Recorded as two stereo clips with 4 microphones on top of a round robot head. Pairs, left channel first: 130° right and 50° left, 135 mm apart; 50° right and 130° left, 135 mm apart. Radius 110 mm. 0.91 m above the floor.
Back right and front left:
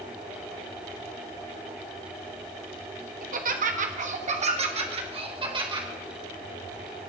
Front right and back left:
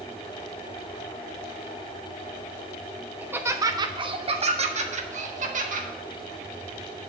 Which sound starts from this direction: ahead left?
Laughter, at 3.2 s.